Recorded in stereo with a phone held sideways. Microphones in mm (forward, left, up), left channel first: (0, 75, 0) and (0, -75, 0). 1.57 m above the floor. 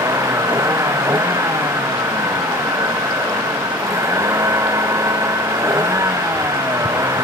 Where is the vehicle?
20° right (ahead or behind).